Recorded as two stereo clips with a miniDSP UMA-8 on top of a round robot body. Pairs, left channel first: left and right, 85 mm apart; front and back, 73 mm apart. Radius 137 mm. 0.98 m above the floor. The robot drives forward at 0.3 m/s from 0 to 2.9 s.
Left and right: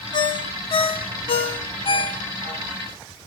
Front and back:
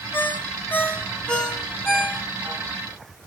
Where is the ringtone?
60° left, 1.1 m; by 2.6 s 100° left, 1.0 m.